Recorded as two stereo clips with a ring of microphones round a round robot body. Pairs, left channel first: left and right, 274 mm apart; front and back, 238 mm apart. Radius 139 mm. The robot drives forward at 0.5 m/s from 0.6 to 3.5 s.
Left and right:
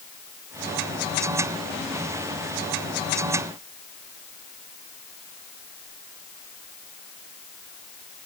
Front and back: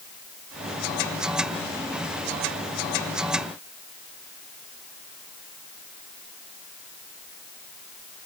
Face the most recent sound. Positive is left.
No sound to turn to.